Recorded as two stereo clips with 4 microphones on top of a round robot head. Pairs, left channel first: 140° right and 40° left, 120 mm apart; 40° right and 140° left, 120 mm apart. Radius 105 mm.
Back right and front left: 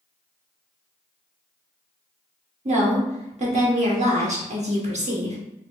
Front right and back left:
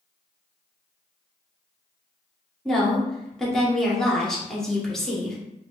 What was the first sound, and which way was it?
A woman speaking, 50° left.